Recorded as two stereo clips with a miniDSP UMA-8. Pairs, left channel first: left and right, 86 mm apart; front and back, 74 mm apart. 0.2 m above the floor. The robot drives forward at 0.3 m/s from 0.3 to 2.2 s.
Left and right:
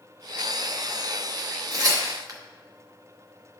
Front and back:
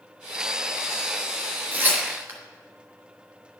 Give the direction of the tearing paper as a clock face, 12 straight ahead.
4 o'clock.